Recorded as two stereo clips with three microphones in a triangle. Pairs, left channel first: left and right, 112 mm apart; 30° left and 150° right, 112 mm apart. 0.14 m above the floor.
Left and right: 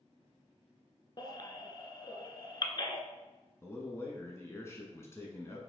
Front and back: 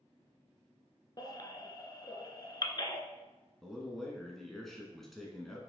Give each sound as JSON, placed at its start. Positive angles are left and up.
{"t": 1.2, "sound": "a baby crying", "azimuth_deg": 60, "distance_m": 0.8}
{"t": 3.6, "sound": "a man speaking", "azimuth_deg": 115, "distance_m": 1.2}